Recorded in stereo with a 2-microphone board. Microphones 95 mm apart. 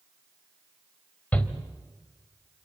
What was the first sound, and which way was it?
A shout, 15° left (ahead or behind).